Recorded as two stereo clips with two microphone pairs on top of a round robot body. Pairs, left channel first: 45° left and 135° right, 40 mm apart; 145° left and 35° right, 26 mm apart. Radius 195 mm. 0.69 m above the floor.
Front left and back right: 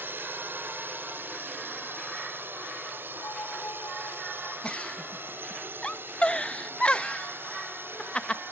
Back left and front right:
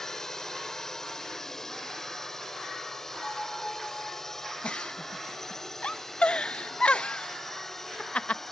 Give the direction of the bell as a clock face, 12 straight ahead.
10 o'clock.